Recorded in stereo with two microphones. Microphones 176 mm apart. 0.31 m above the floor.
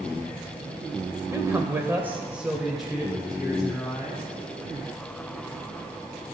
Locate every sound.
1.3 s a man speaking: 15° right (ahead or behind), 0.9 m; by 4.2 s 5° left (ahead or behind), 1.9 m